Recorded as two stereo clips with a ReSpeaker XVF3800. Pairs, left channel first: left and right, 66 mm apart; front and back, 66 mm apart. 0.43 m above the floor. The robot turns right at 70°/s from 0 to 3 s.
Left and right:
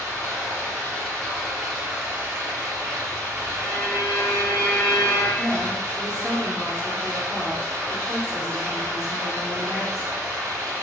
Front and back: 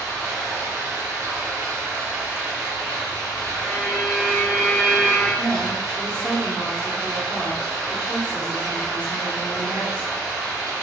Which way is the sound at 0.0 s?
75° left.